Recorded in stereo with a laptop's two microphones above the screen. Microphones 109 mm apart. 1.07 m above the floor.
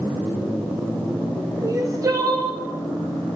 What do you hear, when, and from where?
1.6 s crying: 30° right (ahead or behind), 0.8 m